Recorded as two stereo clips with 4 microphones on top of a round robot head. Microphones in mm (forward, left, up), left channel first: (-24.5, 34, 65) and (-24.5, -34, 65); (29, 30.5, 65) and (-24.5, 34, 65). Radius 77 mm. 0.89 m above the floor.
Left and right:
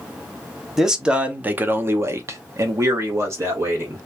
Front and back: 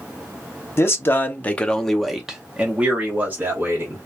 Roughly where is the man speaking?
Ahead.